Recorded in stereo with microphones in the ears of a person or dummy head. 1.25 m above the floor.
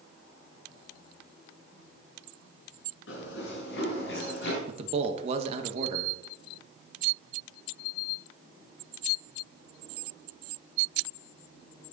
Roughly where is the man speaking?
Right.